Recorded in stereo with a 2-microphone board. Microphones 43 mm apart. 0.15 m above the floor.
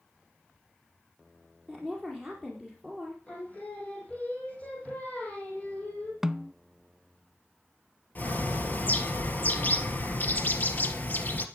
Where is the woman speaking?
5° left (ahead or behind), 4.5 m.